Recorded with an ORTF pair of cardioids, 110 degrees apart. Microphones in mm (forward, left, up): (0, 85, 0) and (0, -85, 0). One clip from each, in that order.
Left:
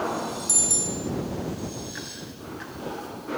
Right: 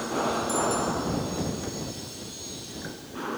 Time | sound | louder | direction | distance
0.5 | a bicycle bell | even | 70° left | ?